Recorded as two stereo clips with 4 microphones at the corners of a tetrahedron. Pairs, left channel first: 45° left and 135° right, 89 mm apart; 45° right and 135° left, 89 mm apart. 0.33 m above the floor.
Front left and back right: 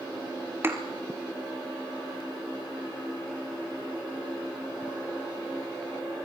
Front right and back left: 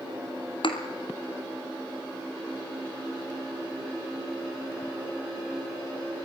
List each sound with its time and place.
0.6 s a thud: 70° right, 2.5 m